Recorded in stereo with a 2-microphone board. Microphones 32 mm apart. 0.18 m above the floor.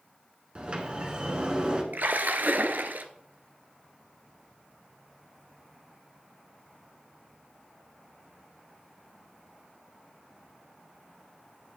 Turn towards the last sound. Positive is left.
turn(degrees=-70)  # may be behind; listen again after turning